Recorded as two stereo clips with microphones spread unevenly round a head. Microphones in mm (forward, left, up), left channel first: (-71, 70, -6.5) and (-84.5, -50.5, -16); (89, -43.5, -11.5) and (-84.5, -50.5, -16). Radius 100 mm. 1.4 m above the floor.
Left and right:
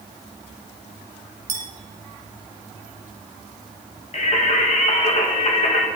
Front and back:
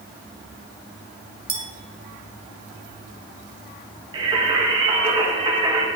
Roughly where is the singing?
Behind left.